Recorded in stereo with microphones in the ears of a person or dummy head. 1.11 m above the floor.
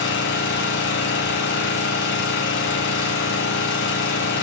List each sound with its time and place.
0.0 s an engine running: 50° left (ahead or behind), 1.2 m